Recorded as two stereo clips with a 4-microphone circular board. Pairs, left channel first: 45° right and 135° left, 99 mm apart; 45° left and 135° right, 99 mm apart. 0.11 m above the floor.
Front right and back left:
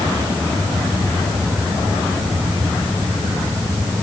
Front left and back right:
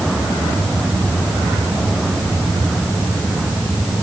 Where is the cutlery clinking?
I don't hear cutlery clinking.